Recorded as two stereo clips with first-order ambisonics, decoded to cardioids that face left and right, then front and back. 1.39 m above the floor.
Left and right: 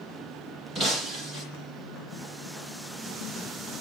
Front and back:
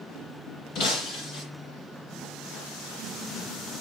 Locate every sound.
0.8 s breaking glass: 30° right, 6.5 m